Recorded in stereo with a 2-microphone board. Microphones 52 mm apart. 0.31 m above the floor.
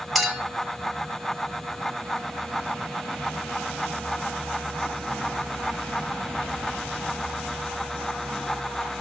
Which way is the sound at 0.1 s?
Centre (ahead or behind).